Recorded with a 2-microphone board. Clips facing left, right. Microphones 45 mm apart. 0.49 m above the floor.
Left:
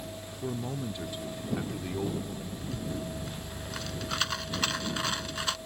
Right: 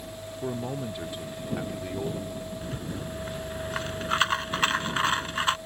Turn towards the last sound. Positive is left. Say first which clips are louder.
# right 1 dB
turn(degrees=-35)  # may be behind; listen again after turning